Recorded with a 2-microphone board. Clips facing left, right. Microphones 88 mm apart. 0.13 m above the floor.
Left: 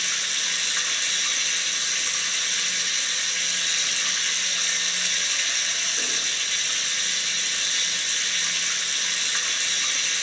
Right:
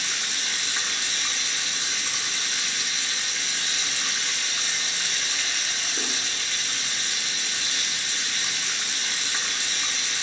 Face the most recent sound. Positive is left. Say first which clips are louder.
# even
turn(degrees=-55)  # may be behind; listen again after turning